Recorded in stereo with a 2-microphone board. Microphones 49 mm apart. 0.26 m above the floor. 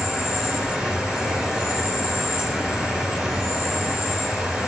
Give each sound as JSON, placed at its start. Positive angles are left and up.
{"t": 0.0, "sound": "an insect", "side_deg": -10, "distance_m": 1.9}